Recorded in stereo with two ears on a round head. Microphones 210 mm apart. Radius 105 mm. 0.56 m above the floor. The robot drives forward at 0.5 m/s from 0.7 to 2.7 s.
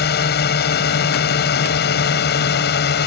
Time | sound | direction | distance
0.0 | a drone | 45° left (ahead or behind) | ?